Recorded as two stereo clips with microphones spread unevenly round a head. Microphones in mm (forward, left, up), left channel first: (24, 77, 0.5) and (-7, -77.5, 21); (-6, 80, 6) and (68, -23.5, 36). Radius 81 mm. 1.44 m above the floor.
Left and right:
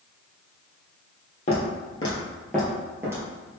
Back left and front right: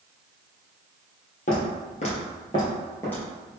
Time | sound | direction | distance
1.5 | footsteps | 120° left | 1.8 m